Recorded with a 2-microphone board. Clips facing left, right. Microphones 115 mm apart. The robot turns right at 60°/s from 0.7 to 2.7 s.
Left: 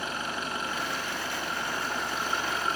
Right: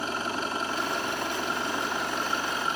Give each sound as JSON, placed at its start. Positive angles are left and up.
{"t": 0.0, "sound": "an engine running", "azimuth_deg": -150, "distance_m": 7.0}